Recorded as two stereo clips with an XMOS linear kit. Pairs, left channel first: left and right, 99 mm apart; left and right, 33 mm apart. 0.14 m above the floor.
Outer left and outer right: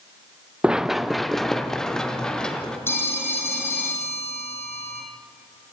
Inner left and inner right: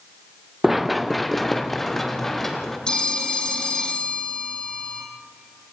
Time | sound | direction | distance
0.6 | running footsteps | 10° right (ahead or behind) | 0.8 m
2.9 | a phone ringing | 25° left (ahead or behind) | 3.5 m